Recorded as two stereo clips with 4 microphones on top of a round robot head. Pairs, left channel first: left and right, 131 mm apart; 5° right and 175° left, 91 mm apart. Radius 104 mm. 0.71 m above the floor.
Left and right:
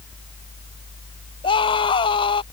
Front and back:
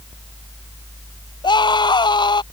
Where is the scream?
30° left.